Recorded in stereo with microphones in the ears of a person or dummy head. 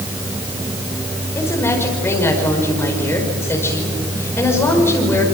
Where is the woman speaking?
10° left (ahead or behind), 5 m.